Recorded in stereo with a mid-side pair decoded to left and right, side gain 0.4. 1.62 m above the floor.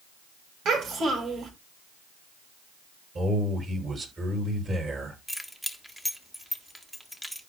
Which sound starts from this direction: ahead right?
A man speaking, at 3.1 s.